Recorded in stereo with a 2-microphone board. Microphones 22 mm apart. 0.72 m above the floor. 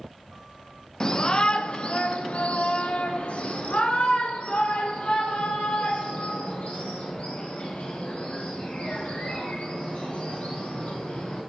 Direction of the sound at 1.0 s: 30° left (ahead or behind).